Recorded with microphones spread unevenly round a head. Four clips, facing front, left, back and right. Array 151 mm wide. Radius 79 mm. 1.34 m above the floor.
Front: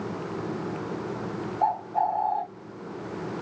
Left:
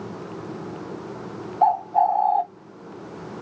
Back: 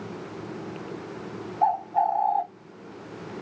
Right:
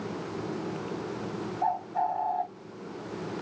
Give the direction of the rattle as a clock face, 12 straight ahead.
I don't hear a rattle.